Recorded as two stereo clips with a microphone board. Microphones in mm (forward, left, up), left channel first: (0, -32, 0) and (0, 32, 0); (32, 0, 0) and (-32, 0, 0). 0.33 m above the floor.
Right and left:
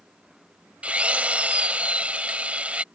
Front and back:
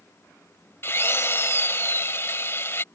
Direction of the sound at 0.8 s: 30° left.